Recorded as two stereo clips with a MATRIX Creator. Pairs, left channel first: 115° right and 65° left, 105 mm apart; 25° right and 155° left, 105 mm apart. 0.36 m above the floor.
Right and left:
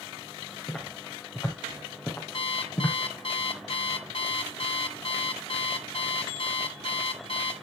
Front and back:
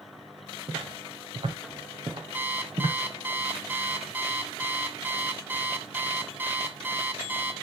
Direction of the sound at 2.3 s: 130° right.